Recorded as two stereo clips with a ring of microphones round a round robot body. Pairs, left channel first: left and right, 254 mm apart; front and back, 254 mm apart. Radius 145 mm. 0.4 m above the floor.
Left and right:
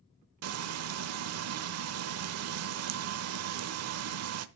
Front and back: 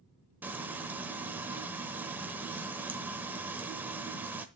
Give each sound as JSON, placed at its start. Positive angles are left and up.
{"t": 0.4, "sound": "frying", "azimuth_deg": -95, "distance_m": 0.9}